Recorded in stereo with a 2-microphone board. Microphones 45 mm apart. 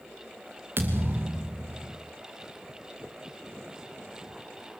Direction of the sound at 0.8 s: 60° right (ahead or behind).